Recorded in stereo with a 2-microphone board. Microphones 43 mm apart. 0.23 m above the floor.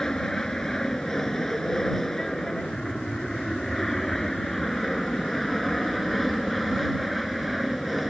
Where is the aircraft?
15° left (ahead or behind); by 8.1 s centre (ahead or behind).